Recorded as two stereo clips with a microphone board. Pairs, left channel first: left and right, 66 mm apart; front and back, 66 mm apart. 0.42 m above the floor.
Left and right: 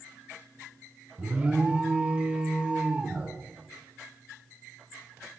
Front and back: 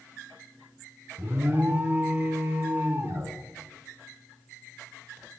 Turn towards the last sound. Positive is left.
turn(degrees=-150)